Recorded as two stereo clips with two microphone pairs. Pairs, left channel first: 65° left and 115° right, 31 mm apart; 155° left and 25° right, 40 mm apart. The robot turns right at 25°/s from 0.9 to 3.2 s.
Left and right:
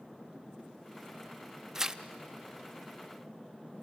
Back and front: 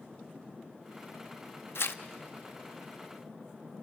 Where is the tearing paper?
170° left, 0.6 m; by 2.0 s 175° left, 0.6 m.